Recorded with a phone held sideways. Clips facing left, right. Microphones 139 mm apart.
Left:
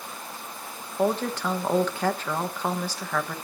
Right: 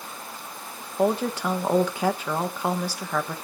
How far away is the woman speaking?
About 1.5 m.